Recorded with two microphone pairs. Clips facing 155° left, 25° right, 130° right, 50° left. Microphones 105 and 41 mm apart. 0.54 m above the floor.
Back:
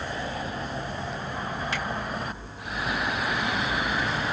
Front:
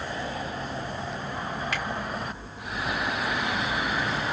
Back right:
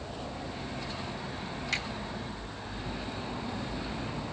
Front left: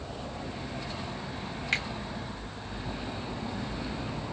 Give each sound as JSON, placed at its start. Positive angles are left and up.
{"t": 1.7, "sound": "a finger snap", "azimuth_deg": 100, "distance_m": 1.9}